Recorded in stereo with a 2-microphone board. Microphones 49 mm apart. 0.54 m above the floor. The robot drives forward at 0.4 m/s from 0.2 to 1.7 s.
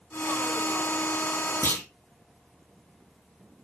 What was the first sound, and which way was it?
A clunk, 70° left (ahead or behind).